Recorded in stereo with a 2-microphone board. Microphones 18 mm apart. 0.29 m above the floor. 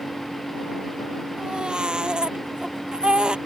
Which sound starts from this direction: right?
A baby crying, at 1.4 s.